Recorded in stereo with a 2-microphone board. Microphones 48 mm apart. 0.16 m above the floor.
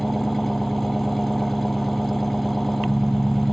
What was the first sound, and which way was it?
An engine running, 5° left (ahead or behind).